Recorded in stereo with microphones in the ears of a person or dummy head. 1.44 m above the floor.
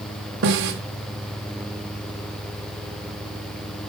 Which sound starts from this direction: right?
A snare drum, at 0.4 s.